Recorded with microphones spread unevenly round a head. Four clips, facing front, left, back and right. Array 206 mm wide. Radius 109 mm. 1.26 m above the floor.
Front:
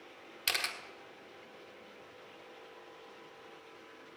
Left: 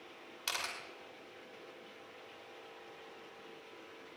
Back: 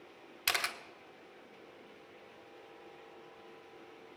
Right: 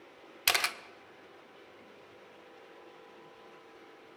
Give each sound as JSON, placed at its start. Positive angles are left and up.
{"t": 0.5, "sound": "a camera shutter", "azimuth_deg": -95, "distance_m": 1.3}